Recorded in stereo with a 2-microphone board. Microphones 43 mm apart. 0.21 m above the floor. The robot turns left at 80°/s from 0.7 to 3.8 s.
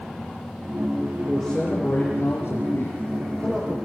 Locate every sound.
1.3 s a man speaking: 150° right, 5.5 m; by 3.8 s 15° left, 5.5 m